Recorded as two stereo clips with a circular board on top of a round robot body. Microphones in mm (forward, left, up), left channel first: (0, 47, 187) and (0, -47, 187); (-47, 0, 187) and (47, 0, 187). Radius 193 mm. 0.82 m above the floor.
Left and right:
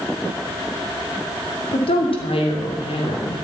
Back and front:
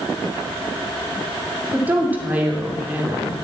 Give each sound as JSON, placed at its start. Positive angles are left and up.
{"t": 1.7, "sound": "a woman speaking", "azimuth_deg": 70, "distance_m": 2.5}